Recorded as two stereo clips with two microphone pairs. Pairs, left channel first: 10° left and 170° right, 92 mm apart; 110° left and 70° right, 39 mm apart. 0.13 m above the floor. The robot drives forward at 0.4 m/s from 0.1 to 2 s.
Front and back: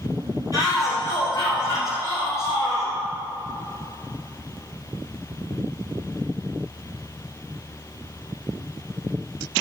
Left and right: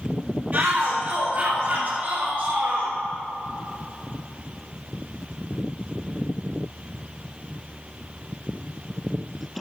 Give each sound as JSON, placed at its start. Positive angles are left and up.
{"t": 0.5, "sound": "a shout", "azimuth_deg": -25, "distance_m": 2.5}